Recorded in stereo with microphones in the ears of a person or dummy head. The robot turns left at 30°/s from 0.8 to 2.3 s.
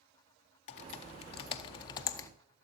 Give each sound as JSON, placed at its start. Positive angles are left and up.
{"t": 0.7, "sound": "typing on a keyboard", "side_deg": 40, "distance_m": 0.5}